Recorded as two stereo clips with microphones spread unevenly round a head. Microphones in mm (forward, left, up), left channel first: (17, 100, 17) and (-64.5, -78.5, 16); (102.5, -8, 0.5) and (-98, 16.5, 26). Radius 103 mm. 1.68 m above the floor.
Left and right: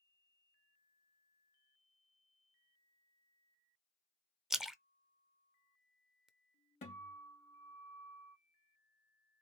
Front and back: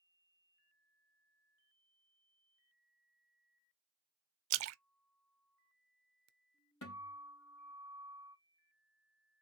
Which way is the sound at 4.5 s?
160° left.